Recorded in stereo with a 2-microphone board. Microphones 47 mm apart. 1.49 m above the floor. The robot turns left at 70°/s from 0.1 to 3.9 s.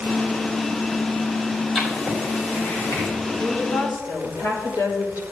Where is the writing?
5° right (ahead or behind), 5 m; by 3.1 s 90° left, 5 m.